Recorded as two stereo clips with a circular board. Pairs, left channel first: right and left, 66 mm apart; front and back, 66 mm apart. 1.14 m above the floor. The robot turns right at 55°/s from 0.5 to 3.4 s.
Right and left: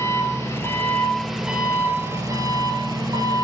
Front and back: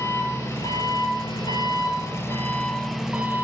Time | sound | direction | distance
0.0 | an engine running | 45° right | 5 m